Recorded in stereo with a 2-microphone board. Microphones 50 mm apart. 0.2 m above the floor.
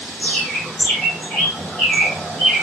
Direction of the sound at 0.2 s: 30° left (ahead or behind).